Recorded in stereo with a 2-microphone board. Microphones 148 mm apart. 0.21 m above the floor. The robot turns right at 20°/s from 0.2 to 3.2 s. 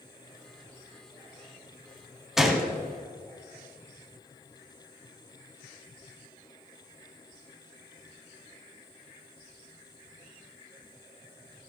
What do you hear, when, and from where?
2.4 s a gunshot: 5° right (ahead or behind), 1.3 m; by 2.7 s centre (ahead or behind), 1.3 m